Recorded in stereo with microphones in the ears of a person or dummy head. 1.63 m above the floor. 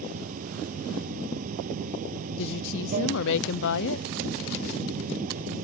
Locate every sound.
0.0 s running water: 45° right (ahead or behind)
2.4 s a woman speaking: 70° left (ahead or behind)